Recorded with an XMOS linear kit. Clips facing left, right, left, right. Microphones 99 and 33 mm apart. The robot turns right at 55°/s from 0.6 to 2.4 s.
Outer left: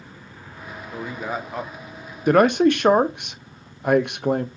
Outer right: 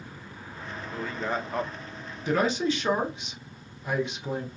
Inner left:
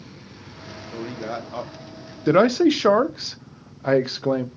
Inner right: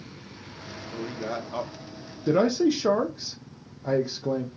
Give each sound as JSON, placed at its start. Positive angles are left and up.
{"t": 0.9, "sound": "a man speaking", "azimuth_deg": 145, "distance_m": 0.7}
{"t": 2.3, "sound": "a man speaking", "side_deg": 55, "distance_m": 0.6}